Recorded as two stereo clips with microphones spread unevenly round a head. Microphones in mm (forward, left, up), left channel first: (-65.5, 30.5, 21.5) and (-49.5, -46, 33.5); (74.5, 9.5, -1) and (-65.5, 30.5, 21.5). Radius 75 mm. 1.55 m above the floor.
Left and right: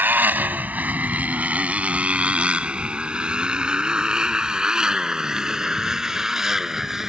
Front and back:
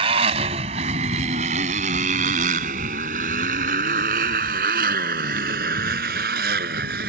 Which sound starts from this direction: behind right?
A motorcycle, at 0.0 s.